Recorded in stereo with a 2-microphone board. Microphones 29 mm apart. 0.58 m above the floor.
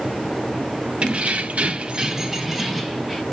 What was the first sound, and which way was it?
Keys jangling, 45° right (ahead or behind).